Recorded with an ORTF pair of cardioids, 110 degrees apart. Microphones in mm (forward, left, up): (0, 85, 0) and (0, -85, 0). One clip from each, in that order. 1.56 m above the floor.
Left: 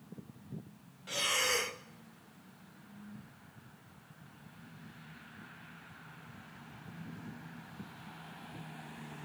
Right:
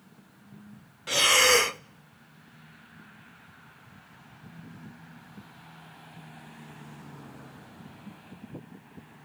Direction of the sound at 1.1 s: 50° right.